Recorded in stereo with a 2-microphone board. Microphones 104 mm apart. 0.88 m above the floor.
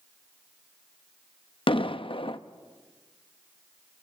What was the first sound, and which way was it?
An explosion, 60° left (ahead or behind).